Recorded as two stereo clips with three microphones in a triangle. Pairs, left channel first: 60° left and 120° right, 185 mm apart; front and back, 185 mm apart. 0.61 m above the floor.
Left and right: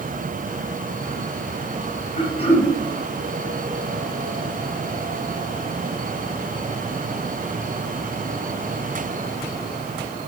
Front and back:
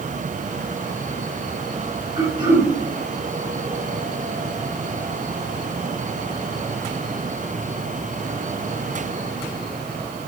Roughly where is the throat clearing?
Behind left.